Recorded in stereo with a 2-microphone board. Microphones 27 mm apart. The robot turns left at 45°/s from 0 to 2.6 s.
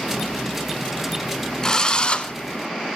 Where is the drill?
150° left, 1.1 m; by 2.3 s 120° left, 1.1 m.